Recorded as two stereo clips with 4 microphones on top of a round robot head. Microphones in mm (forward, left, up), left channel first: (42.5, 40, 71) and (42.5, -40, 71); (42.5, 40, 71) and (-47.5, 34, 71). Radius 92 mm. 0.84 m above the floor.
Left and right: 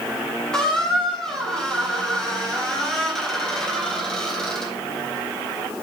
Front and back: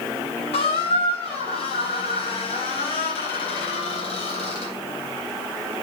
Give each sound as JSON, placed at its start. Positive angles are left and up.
{"t": 0.5, "sound": "a squeak", "azimuth_deg": 5, "distance_m": 3.5}